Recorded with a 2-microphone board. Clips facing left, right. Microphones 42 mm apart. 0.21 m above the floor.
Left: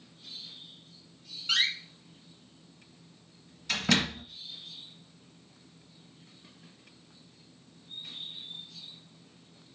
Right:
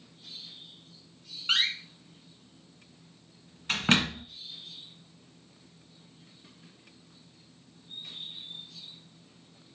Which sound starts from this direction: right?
A door slam, at 1.5 s.